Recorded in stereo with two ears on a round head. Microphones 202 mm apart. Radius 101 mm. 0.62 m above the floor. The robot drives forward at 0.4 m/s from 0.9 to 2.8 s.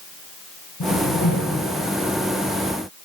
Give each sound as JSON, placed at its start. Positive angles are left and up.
{"t": 0.8, "sound": "a whoosh", "side_deg": 70, "distance_m": 1.7}